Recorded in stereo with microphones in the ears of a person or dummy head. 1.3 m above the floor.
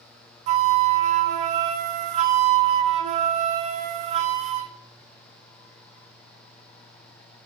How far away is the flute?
About 0.7 m.